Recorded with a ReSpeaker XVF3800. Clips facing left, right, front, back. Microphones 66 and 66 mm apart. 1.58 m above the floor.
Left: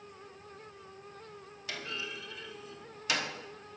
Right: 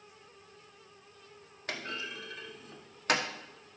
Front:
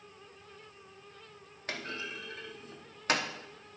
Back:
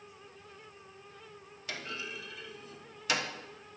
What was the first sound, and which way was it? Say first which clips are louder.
A clunk: right 1 dB, front 2 dB; 45° right.